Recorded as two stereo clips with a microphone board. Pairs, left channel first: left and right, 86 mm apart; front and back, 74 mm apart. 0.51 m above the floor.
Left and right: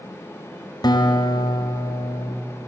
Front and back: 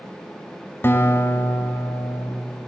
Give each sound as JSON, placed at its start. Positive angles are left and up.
{"t": 0.8, "sound": "a guitar", "azimuth_deg": 55, "distance_m": 1.9}